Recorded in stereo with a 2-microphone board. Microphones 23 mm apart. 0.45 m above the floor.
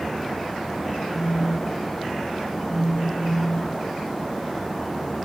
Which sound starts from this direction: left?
A phone buzzing, at 1.1 s.